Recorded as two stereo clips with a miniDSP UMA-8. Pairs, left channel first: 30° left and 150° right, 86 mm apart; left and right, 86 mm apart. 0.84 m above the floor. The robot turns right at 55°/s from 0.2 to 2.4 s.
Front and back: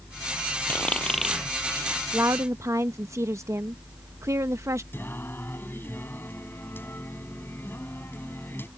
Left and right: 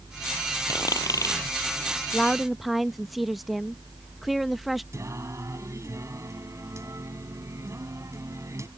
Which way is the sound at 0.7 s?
90° left.